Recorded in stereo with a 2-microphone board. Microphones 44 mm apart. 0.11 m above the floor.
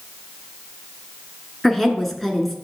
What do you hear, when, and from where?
1.6 s a woman speaking: 10° left (ahead or behind), 1.1 m